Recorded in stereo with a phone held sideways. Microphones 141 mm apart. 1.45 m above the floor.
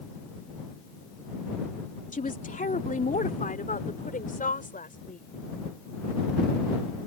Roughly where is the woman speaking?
Left.